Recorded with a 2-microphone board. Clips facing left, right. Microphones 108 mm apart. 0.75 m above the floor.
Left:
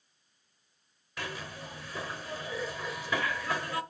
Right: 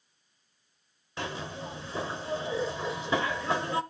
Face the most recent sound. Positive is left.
turn(degrees=-25)  # may be behind; listen again after turning